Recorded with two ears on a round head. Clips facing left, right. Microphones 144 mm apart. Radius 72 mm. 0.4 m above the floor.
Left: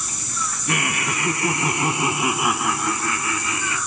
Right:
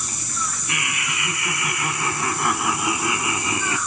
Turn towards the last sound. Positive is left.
turn(degrees=-25)  # may be behind; listen again after turning